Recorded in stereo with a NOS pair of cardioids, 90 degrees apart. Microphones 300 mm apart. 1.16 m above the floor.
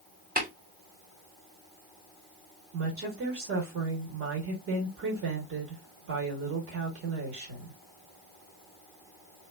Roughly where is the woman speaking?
Ahead right.